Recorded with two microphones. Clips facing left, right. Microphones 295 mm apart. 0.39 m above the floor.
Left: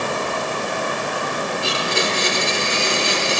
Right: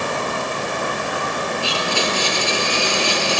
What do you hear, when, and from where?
1.6 s a blender: 20° left (ahead or behind), 6.5 m